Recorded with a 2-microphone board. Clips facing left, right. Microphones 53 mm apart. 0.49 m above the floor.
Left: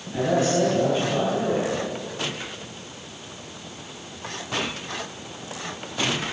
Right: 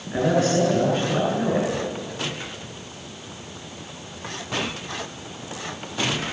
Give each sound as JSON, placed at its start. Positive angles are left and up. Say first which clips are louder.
{"t": 0.1, "sound": "a man speaking", "louder": "right 1 dB", "side_deg": -50, "distance_m": 8.5}